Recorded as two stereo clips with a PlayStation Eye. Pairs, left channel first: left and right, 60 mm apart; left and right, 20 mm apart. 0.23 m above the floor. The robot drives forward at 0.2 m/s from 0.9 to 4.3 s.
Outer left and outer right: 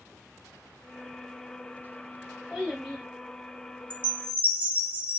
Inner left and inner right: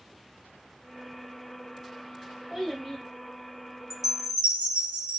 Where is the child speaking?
5° right (ahead or behind), 1.2 m.